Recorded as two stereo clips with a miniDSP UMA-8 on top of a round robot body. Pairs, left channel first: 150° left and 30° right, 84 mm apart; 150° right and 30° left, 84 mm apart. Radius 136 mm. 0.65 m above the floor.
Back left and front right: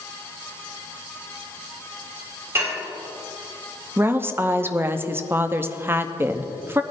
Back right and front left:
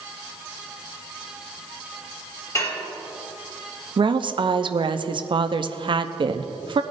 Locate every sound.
2.5 s dishes clattering: 95° right, 3.5 m
4.0 s a woman speaking: 30° left, 0.9 m